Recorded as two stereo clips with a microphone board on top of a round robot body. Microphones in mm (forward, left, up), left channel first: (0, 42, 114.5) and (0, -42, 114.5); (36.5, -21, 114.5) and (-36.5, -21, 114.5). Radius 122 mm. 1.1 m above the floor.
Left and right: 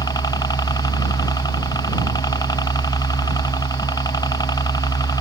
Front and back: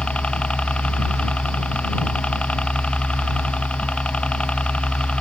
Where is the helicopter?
75° left.